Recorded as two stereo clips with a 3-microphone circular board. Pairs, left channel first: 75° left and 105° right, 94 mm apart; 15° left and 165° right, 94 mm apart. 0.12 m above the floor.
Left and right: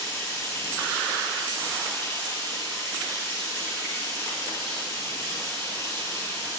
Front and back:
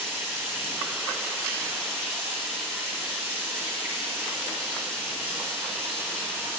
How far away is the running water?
About 3 m.